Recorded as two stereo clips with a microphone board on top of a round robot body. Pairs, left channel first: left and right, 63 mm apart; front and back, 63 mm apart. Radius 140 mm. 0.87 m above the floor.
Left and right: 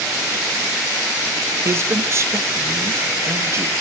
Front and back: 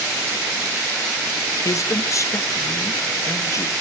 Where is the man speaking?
40° right, 1.1 m.